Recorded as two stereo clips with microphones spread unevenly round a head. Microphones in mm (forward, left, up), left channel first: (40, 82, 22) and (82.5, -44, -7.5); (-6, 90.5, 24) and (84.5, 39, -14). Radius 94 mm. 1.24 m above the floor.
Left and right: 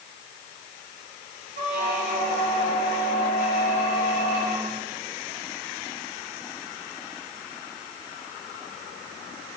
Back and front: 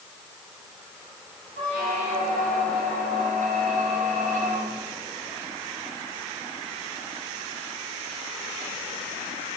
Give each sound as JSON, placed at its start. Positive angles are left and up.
{"t": 1.6, "sound": "a squeak", "azimuth_deg": -45, "distance_m": 2.0}